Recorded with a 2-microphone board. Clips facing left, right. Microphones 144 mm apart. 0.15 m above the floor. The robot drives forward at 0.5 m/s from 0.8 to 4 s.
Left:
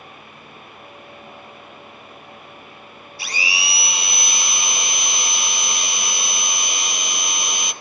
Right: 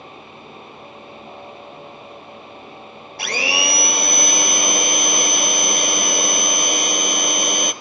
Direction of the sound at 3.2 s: 65° right (ahead or behind).